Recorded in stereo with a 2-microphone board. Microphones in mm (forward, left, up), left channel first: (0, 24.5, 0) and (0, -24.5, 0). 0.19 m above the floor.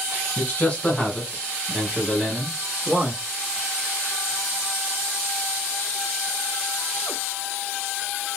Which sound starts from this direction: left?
A man speaking, at 0.4 s.